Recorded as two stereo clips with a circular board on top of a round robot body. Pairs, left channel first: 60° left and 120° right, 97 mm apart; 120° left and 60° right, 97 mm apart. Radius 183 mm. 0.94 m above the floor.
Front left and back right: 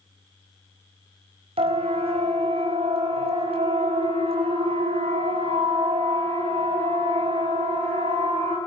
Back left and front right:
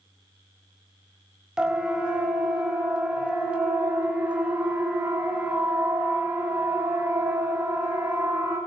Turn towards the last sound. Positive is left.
turn(degrees=-135)